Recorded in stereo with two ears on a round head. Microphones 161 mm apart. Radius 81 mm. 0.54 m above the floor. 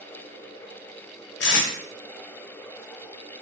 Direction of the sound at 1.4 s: 65° left (ahead or behind).